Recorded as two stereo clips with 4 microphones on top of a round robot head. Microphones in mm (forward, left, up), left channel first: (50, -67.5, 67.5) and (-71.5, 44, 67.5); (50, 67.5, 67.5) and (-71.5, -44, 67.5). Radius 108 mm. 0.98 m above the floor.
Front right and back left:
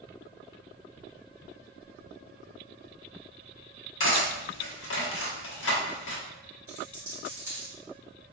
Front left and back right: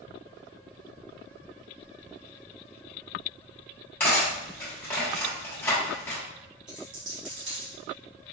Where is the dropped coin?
145° right, 1.6 m.